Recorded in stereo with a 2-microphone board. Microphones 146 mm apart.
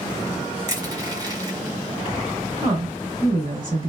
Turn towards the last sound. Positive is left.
turn(degrees=-35)  # may be behind; listen again after turning